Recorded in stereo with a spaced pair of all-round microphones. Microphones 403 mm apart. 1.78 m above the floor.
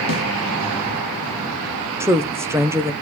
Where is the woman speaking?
5° right (ahead or behind), 0.9 m.